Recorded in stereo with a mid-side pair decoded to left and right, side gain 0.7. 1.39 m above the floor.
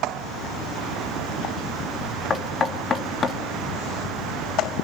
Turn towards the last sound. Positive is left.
turn(degrees=30)